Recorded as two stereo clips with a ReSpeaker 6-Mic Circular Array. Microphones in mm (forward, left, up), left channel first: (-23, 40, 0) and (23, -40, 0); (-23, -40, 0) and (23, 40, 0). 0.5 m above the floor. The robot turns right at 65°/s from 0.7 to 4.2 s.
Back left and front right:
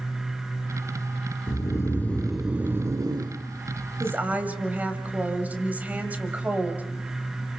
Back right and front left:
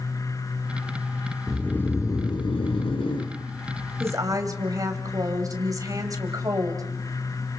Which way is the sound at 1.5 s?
155° left.